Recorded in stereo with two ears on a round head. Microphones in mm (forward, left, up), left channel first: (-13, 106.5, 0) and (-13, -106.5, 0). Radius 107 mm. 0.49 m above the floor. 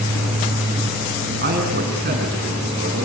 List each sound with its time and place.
1.4 s a man speaking: 40° right (ahead or behind), 6 m